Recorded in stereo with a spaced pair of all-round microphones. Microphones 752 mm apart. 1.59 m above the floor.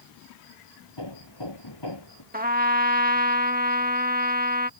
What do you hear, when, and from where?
1.0 s hammering: 35° left (ahead or behind)
2.3 s a trumpet: 10° right (ahead or behind)